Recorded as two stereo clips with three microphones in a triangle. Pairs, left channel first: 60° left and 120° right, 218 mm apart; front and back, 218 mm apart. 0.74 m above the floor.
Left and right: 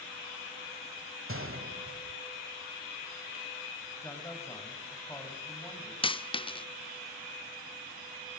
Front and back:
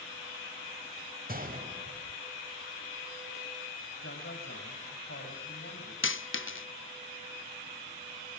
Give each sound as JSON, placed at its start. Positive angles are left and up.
{"t": 1.3, "sound": "a gunshot", "azimuth_deg": -135, "distance_m": 2.0}
{"t": 4.0, "sound": "a man speaking", "azimuth_deg": -15, "distance_m": 5.0}
{"t": 6.0, "sound": "a dropped coin", "azimuth_deg": -5, "distance_m": 0.5}